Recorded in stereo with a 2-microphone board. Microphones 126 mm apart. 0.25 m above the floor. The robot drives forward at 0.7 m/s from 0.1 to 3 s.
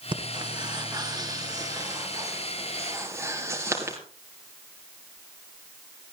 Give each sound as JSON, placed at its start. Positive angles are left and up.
{"t": 0.1, "sound": "breathing", "side_deg": -40, "distance_m": 2.0}